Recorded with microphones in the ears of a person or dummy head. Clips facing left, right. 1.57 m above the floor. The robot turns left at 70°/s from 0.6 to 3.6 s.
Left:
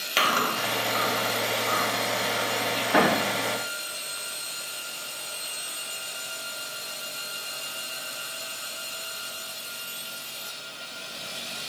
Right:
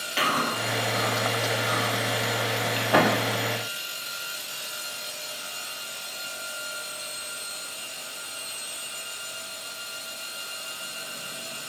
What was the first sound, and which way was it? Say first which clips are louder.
Chewing: even; 65° left (ahead or behind).